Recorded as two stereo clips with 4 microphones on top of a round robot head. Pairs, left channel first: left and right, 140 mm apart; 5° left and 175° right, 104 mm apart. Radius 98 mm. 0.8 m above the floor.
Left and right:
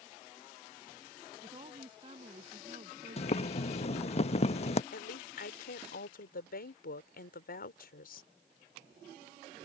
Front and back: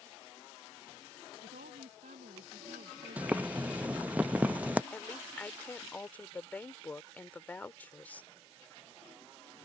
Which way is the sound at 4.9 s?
80° left.